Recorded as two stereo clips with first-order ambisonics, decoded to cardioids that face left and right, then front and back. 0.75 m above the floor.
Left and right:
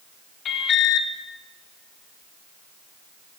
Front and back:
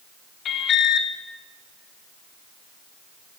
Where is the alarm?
45° left, 2 m.